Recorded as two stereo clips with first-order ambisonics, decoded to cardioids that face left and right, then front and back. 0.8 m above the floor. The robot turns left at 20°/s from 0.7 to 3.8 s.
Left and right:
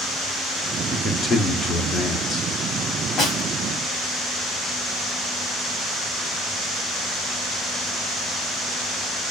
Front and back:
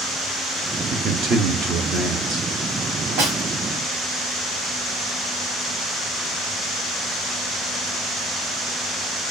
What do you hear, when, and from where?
0.9 s a man speaking: 175° left, 1.2 m; by 2.5 s 140° left, 1.2 m
3.2 s a snare drum: 155° left, 2.5 m; by 3.4 s 150° left, 2.5 m